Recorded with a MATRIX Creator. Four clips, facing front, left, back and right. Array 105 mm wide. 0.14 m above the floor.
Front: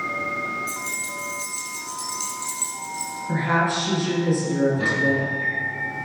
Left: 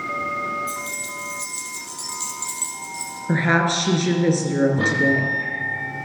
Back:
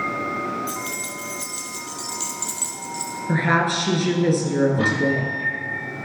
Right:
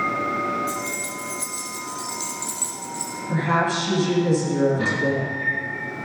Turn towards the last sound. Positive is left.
turn(degrees=140)